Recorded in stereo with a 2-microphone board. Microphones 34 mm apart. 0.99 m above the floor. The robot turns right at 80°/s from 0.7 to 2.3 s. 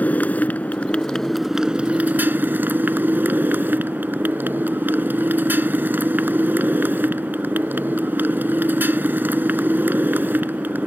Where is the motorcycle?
125° left; by 10.9 s 110° right.